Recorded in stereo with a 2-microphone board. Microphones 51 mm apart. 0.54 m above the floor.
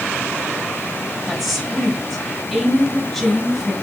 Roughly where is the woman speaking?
Centre.